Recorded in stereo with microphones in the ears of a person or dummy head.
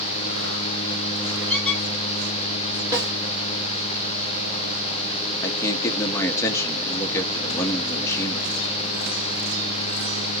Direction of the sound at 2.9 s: 20° right (ahead or behind).